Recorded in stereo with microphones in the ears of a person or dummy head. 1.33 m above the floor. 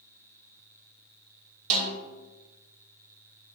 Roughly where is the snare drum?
Right.